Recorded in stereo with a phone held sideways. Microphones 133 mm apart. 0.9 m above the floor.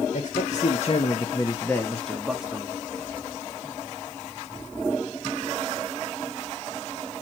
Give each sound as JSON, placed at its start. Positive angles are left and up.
{"t": 0.1, "sound": "a man speaking", "side_deg": 70, "distance_m": 1.4}